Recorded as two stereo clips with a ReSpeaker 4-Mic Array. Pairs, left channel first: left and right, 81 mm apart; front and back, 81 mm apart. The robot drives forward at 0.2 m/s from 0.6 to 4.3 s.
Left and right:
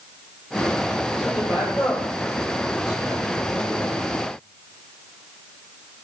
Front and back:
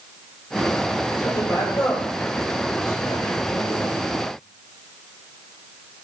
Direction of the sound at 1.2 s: 45° left.